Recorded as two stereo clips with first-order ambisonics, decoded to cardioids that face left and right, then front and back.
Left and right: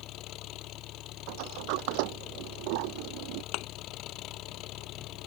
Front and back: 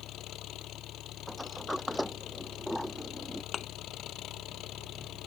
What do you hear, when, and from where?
0.0 s an engine running: 45° left
1.3 s a sliding door: 85° right
3.5 s a thud: 60° left